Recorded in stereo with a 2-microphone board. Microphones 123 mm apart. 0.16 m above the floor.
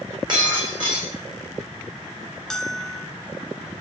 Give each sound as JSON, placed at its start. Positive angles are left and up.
{"t": 0.3, "sound": "breaking glass", "side_deg": -40, "distance_m": 4.5}
{"t": 2.5, "sound": "a bell", "side_deg": 5, "distance_m": 0.9}